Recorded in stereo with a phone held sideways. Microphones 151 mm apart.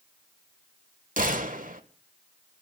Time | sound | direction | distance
1.2 | a gunshot | 60° right (ahead or behind) | 1.5 m